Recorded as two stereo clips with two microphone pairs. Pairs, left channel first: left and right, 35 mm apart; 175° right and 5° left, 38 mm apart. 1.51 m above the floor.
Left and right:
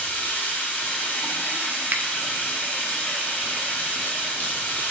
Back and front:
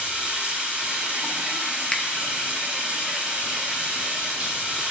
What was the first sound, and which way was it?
Running water, 65° left.